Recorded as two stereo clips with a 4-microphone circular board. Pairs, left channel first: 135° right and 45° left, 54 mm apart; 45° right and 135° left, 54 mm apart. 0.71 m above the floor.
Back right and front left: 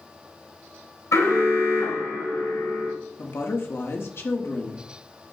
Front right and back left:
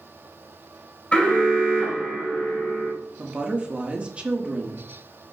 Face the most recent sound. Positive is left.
turn(degrees=-160)